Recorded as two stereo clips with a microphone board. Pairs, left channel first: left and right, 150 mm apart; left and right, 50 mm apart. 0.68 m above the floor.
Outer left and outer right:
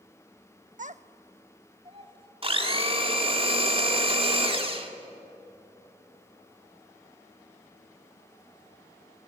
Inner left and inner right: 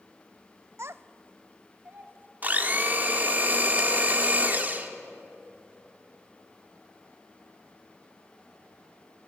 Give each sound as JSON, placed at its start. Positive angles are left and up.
{"t": 0.8, "sound": "a child speaking", "side_deg": -60, "distance_m": 0.7}
{"t": 2.4, "sound": "a blender", "side_deg": -40, "distance_m": 1.9}